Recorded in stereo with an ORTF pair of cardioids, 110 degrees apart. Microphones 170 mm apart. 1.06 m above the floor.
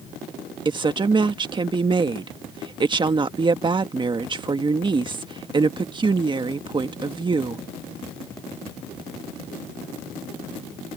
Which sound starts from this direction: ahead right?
A woman speaking, at 0.7 s.